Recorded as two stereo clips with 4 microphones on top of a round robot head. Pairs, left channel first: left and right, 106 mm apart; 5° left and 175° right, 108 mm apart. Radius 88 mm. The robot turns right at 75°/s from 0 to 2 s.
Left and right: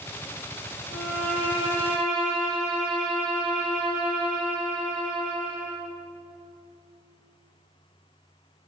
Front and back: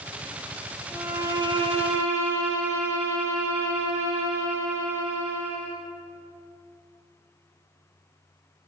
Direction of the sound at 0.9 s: 100° left.